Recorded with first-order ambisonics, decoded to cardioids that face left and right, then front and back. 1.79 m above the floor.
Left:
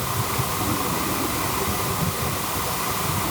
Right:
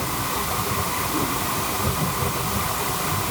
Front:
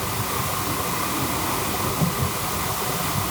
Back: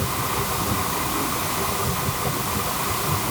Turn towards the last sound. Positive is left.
No sound to turn to.